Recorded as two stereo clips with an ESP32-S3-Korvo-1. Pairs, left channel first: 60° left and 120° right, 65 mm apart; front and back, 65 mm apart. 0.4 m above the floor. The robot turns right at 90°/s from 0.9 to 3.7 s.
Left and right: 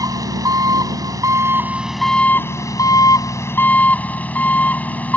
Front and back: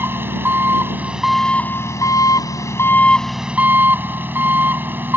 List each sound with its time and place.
0.0 s an engine running: 125° right; by 5.2 s 125° left